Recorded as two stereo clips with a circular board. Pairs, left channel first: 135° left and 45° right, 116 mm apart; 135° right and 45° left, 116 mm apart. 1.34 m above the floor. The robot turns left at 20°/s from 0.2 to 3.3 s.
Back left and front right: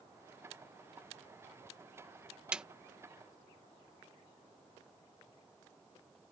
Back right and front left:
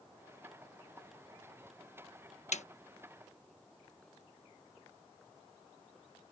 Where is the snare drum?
125° right; by 2.6 s 130° right.